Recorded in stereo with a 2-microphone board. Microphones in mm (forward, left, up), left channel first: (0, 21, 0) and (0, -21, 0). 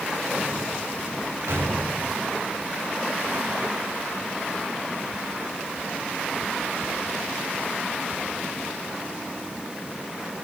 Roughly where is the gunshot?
Right.